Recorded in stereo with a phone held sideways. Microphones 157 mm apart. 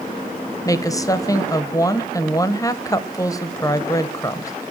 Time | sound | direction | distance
0.7 | a woman speaking | 20° left (ahead or behind) | 0.6 m